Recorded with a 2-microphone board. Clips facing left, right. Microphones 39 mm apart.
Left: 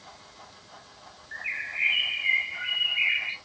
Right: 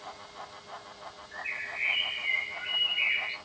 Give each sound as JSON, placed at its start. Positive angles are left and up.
{"t": 1.3, "sound": "a bird", "side_deg": 45, "distance_m": 1.2}